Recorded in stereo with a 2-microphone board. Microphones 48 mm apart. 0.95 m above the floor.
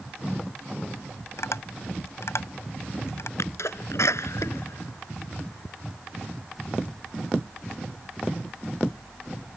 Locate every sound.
1.4 s tapping: 75° left (ahead or behind)
3.4 s a sneeze: 85° left